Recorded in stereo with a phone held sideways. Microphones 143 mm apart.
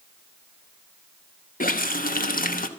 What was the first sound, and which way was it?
A running tap, 80° left.